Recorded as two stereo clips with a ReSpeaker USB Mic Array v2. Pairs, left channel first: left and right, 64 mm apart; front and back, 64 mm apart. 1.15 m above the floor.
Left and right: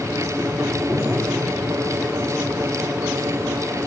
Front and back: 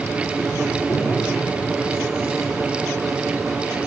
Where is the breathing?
20° right, 1.9 m.